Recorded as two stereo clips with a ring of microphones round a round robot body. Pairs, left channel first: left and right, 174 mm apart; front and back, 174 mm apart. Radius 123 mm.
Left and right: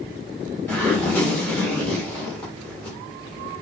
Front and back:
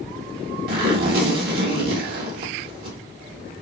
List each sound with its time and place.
0.7 s a zipper: 170° left, 1.6 m